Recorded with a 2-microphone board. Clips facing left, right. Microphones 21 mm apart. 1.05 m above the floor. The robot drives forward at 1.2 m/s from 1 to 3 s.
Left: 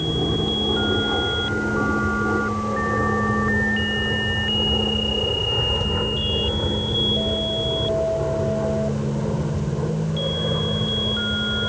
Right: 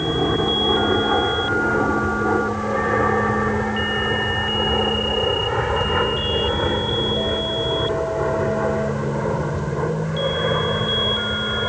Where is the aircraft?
60° right (ahead or behind).